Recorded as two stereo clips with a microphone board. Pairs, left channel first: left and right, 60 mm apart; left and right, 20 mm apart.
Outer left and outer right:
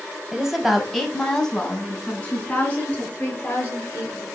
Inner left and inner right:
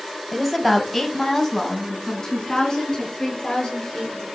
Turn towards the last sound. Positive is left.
turn(degrees=30)  # may be behind; listen again after turning